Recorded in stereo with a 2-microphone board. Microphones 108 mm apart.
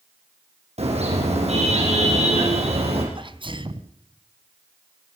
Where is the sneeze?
50° right (ahead or behind), 1.9 m.